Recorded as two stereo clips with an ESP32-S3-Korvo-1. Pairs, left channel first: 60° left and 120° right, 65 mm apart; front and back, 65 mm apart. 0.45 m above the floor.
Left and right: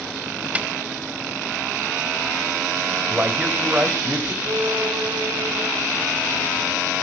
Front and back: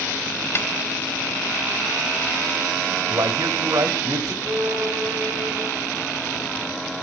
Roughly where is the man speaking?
Behind.